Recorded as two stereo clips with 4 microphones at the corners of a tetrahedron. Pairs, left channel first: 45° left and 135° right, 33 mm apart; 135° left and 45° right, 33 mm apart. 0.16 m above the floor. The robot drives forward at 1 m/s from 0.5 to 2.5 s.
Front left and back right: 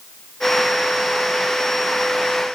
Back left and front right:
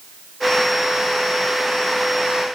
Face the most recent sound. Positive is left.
No sound to turn to.